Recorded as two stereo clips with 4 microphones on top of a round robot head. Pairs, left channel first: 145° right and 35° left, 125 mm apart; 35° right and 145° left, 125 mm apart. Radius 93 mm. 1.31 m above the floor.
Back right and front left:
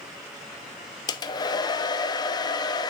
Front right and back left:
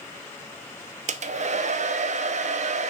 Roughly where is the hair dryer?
Behind.